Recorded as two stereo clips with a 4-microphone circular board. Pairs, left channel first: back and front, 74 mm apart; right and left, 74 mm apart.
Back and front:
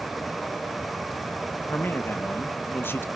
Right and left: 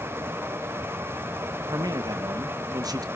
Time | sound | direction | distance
1.7 | a man speaking | 120° left | 1.4 m